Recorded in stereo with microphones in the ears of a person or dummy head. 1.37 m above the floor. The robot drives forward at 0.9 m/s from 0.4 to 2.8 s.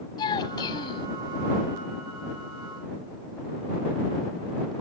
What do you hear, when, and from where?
0.2 s a child speaking: 25° left (ahead or behind)